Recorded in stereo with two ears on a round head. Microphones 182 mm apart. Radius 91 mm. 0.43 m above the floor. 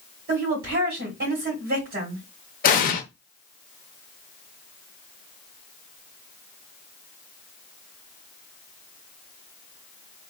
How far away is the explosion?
About 0.6 m.